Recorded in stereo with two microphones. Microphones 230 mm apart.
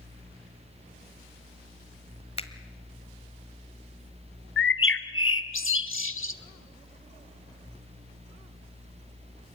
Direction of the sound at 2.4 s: 25° left (ahead or behind).